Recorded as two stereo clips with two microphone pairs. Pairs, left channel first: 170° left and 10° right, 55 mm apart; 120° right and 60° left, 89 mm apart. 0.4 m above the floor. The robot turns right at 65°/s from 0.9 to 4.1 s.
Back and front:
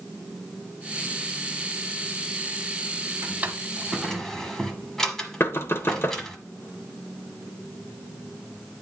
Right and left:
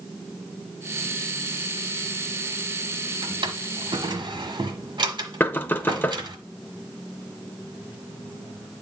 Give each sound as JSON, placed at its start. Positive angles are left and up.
{"t": 3.2, "sound": "a drawer", "azimuth_deg": 30, "distance_m": 1.3}
{"t": 5.4, "sound": "knocking", "azimuth_deg": 175, "distance_m": 0.8}